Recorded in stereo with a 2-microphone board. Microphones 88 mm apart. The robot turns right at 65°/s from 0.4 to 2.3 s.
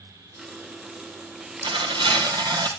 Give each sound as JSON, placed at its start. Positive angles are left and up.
{"t": 1.6, "sound": "tearing paper", "azimuth_deg": -100, "distance_m": 2.5}